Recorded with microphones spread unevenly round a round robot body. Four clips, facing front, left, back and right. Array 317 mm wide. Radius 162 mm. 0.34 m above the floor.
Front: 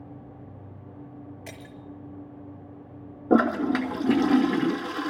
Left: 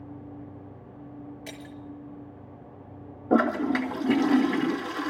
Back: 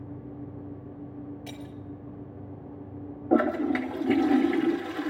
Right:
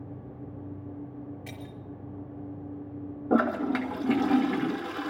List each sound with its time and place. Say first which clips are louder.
1.5 s breaking glass: left 1 dB, back 2 dB; 10° left, 4.5 m
3.3 s a toilet flushing: left 2 dB, front 2 dB; 5° right, 1.9 m